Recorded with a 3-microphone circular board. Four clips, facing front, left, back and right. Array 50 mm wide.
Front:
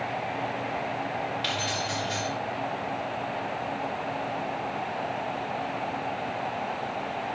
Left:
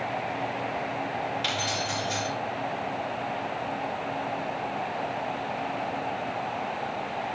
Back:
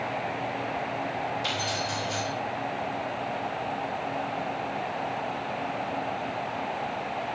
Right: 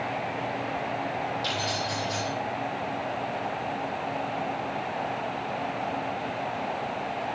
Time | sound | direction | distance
1.4 | keys jangling | 45° left | 6.5 m